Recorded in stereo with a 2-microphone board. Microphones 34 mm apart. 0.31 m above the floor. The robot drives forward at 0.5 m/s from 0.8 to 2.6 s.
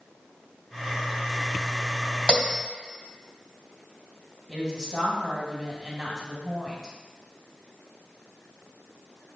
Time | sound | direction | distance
2.3 | a bell | 30° left (ahead or behind) | 2.5 m
4.5 | a woman speaking | 25° right (ahead or behind) | 2 m